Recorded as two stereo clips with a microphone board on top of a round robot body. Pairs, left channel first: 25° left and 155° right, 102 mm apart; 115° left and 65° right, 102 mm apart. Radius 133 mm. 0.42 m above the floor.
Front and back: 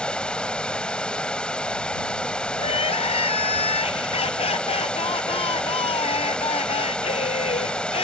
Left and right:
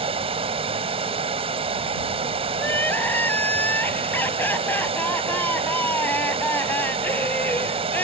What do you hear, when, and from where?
0.0 s running water: 60° right
2.6 s crying: 40° left